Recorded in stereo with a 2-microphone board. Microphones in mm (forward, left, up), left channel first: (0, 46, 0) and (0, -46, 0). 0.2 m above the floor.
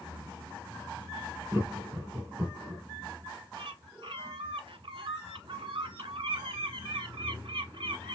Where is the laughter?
25° right (ahead or behind), 2.5 m.